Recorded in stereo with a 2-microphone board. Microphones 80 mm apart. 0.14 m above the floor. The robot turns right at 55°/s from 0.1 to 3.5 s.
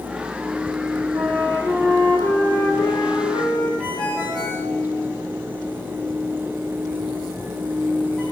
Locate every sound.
1.1 s a flute: 25° right, 5.5 m; by 3.7 s 100° left, 5.5 m
3.8 s a ringtone: 15° left (ahead or behind), 7 m